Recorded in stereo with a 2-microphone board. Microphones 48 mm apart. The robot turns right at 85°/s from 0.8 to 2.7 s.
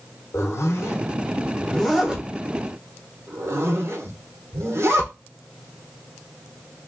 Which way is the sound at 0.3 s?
75° left (ahead or behind).